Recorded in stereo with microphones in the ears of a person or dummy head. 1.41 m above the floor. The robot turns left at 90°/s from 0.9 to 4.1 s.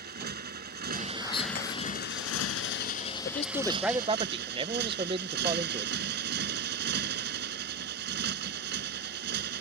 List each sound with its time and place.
0.0 s a motorcycle: 130° right; by 9.6 s 60° right
1.2 s whispering: 165° left; by 1.7 s 120° left
3.2 s a man speaking: 50° left; by 5.9 s 30° right